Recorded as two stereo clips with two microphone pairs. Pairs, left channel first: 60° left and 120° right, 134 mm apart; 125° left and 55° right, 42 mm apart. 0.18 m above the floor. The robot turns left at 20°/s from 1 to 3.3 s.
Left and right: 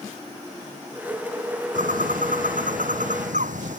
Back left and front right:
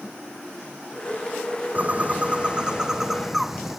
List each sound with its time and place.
1.8 s a bird: 105° right; by 3.8 s 135° right